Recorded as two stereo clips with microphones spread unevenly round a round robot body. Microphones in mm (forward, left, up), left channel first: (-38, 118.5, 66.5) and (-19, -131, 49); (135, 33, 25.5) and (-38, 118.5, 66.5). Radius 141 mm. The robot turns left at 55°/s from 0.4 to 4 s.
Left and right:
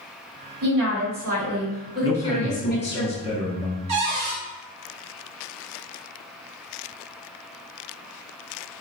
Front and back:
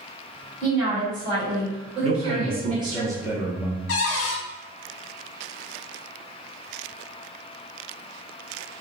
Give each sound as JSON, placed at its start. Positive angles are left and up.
{"t": 0.6, "sound": "a woman speaking", "azimuth_deg": -100, "distance_m": 1.6}
{"t": 2.0, "sound": "a man speaking", "azimuth_deg": 130, "distance_m": 0.6}
{"t": 3.9, "sound": "a cupboard door", "azimuth_deg": -15, "distance_m": 0.6}